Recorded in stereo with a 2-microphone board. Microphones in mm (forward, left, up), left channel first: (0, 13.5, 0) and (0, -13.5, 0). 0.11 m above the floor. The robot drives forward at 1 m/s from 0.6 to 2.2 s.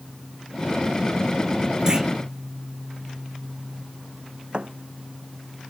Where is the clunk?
25° right (ahead or behind).